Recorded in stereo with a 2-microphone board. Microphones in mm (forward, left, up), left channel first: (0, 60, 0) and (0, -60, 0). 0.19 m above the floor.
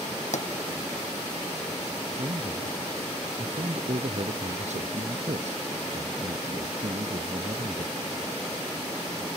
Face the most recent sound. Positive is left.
turn(degrees=-75)  # may be behind; listen again after turning